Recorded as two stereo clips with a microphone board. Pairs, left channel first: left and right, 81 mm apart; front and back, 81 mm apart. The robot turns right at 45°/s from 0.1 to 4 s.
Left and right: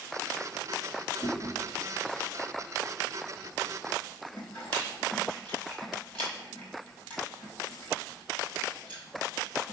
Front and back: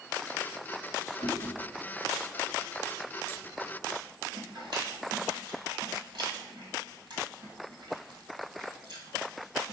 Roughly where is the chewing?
Ahead left.